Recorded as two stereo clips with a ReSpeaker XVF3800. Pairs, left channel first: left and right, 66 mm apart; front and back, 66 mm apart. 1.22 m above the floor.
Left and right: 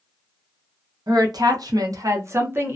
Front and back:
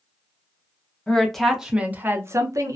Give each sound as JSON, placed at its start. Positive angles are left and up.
{"t": 1.1, "sound": "a woman speaking", "azimuth_deg": -75, "distance_m": 0.7}